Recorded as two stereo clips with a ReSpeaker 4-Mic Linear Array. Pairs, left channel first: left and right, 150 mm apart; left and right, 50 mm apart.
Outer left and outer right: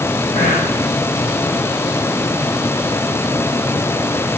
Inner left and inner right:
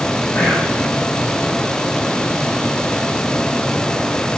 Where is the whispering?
55° left (ahead or behind), 1.8 m.